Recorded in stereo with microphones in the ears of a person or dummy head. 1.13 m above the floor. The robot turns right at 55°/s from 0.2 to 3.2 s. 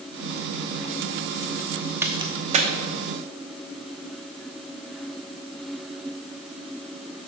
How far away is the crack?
About 0.9 m.